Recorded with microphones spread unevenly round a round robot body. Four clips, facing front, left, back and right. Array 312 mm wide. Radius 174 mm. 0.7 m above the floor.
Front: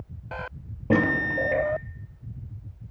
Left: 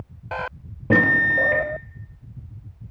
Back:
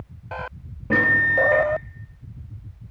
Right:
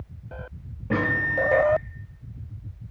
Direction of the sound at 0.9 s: 70° left.